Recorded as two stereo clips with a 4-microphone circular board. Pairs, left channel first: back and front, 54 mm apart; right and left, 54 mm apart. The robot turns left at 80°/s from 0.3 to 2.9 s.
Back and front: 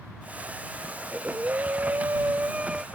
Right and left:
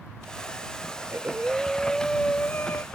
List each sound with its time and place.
1.0 s breathing: 70° left; by 2.8 s 80° right